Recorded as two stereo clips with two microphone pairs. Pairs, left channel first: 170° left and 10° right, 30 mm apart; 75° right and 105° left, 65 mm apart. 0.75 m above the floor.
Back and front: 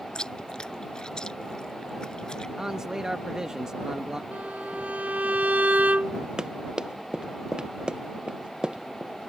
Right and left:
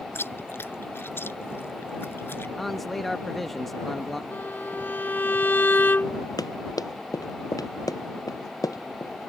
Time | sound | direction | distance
0.1 | chewing | 125° right | ?
2.6 | a man speaking | 15° left | ?
4.3 | a violin | 20° right | ?
6.4 | running footsteps | 70° right | ?